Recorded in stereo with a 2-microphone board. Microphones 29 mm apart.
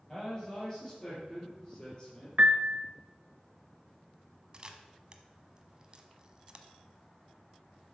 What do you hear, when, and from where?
0.1 s a man speaking: 20° left (ahead or behind), 5.5 m; by 2.3 s 35° left (ahead or behind), 5.5 m
2.4 s a piano: 55° right (ahead or behind), 0.6 m
4.5 s a camera shutter: 30° right (ahead or behind), 1.0 m